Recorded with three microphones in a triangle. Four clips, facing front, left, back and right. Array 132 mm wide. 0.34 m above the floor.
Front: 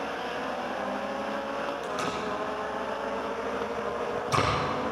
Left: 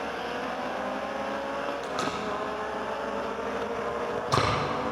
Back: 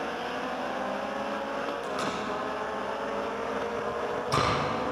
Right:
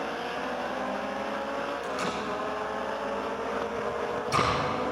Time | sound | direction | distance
1.8 | tape being pulled | 110° left | 6 m